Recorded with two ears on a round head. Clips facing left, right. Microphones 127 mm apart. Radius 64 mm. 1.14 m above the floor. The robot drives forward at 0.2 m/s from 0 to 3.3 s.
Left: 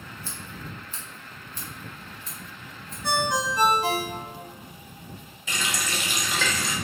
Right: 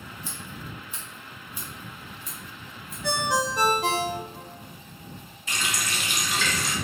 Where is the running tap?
70° left (ahead or behind), 0.5 m.